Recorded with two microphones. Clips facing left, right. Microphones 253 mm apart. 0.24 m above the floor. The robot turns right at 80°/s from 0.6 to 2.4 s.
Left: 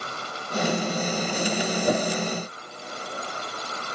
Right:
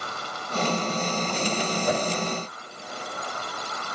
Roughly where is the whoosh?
Left.